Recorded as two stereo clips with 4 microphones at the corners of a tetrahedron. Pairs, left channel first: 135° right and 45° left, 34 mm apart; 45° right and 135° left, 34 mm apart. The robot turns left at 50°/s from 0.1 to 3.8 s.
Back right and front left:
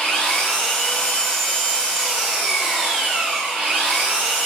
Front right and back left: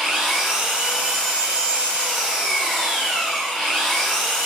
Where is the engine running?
145° right, 1.3 m; by 4.5 s 30° left, 1.3 m.